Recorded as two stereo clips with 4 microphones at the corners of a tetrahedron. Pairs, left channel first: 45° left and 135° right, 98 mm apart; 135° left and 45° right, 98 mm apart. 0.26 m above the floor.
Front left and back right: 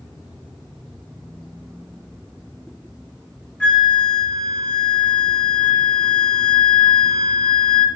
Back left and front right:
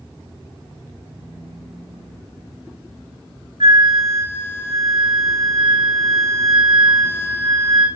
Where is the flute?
35° right, 1.6 m.